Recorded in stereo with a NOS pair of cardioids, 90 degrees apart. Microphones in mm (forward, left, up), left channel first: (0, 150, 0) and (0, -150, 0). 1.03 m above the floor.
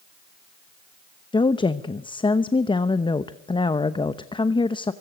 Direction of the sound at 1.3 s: 15° left.